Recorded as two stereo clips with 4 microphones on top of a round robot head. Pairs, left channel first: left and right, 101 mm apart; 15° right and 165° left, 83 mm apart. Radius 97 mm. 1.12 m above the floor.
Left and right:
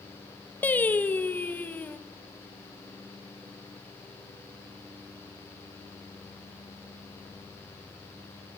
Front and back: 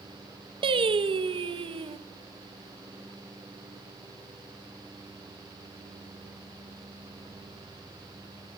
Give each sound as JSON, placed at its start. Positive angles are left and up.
{"t": 0.6, "sound": "singing", "azimuth_deg": 165, "distance_m": 1.7}